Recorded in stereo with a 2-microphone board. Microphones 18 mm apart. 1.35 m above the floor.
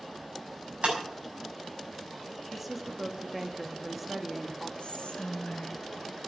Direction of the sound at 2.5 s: 5° right (ahead or behind).